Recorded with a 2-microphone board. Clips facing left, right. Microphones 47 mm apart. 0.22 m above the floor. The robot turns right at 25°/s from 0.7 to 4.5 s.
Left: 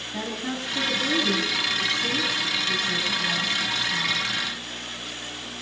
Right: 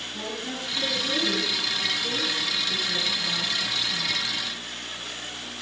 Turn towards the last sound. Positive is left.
turn(degrees=155)